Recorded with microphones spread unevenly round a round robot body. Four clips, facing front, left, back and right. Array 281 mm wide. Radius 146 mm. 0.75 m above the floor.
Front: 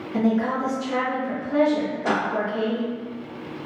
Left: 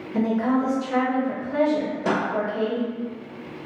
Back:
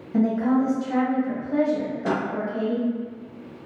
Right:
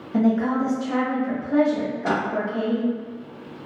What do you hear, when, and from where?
0.1 s a woman speaking: 115° right, 0.8 m
2.0 s a snare drum: 130° left, 0.9 m